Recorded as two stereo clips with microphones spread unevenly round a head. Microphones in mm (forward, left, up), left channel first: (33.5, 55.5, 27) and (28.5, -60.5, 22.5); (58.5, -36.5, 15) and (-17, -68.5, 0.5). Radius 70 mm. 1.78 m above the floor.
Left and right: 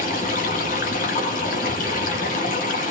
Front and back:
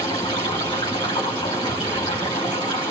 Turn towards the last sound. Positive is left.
turn(degrees=80)